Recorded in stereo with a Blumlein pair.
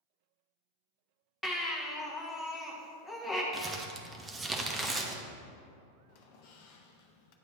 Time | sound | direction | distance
1.4 | a baby crying | straight ahead | 1.2 m
3.5 | crumpling | 10° right | 0.8 m
6.1 | a squeak | 45° left | 0.7 m